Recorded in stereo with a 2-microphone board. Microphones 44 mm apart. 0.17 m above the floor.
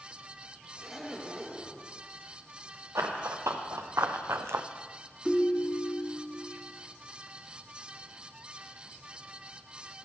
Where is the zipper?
5° right (ahead or behind), 1.1 m.